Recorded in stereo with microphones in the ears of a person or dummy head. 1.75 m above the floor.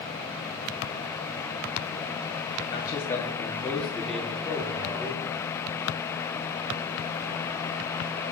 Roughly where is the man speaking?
Left.